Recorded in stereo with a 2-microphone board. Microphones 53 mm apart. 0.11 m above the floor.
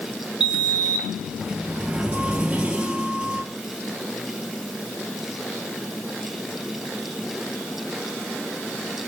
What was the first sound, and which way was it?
A sliding door, 20° right (ahead or behind).